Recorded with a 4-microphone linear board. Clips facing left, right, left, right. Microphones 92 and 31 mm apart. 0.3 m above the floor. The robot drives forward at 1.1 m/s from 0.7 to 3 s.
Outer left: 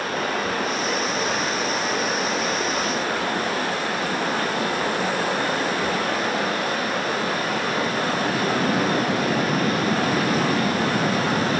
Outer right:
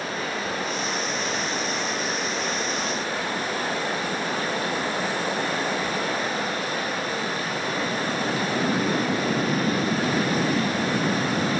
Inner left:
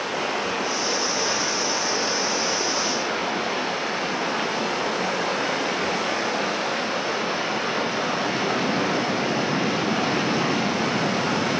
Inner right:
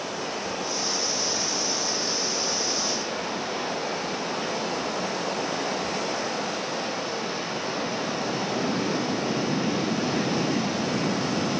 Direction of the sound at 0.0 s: 75° left (ahead or behind).